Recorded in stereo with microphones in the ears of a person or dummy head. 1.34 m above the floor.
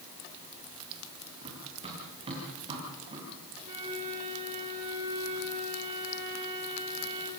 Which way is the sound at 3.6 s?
40° right (ahead or behind).